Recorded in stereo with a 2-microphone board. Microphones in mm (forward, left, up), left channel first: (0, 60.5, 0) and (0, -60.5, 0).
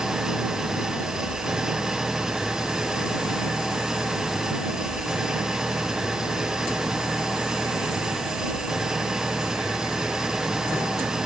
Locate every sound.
0.0 s an engine running: 5° right (ahead or behind)